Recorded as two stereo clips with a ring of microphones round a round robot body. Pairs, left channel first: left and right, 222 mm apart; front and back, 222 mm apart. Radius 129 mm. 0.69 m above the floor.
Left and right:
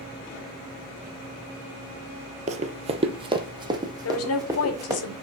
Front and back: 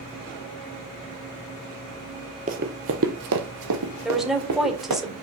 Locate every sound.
2.5 s running footsteps: 130° right, 0.8 m; by 5.0 s 165° right, 3 m
4.0 s a woman speaking: 90° left, 2 m